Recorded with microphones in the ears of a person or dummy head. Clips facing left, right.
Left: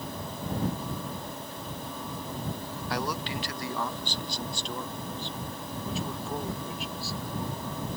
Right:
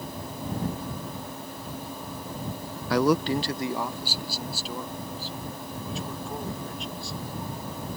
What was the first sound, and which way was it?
A man speaking, 60° right (ahead or behind).